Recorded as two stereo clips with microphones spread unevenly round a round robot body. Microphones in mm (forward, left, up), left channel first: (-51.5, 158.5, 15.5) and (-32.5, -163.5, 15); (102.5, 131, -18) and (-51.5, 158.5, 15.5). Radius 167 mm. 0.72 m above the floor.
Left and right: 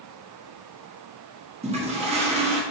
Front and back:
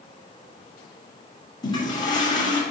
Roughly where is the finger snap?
No finger snap in this recording.